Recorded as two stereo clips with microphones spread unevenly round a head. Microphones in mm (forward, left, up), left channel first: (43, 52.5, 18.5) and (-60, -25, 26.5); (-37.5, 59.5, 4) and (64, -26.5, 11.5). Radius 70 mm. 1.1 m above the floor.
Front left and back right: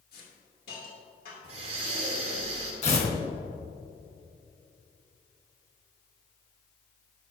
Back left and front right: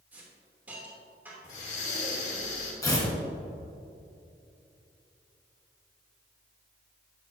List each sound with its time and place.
0.1 s a hiss: 40° left, 3 m
1.4 s breathing: straight behind, 3 m
2.8 s tearing paper: 75° left, 2.5 m